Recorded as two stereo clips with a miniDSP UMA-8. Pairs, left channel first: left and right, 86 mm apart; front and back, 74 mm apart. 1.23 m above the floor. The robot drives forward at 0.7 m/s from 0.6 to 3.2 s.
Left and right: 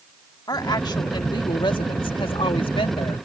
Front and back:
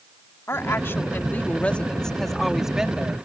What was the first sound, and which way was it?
A woman speaking, 55° left.